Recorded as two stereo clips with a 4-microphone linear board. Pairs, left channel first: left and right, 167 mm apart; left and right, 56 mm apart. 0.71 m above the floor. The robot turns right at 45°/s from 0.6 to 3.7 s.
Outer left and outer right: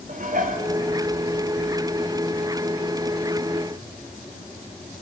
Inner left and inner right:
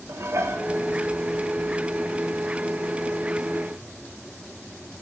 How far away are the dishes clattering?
About 0.8 m.